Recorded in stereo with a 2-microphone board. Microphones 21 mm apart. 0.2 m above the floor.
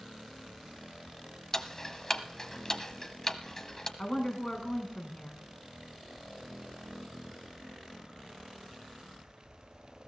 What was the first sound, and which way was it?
Ticking, 20° left (ahead or behind).